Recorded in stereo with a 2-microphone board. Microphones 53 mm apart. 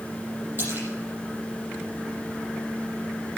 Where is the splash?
40° right (ahead or behind), 6 m.